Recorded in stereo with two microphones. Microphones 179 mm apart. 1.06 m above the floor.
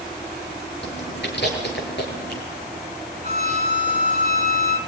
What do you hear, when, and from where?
0.8 s chewing: 70° left (ahead or behind), 4.5 m
3.2 s a violin: 40° right (ahead or behind), 1.7 m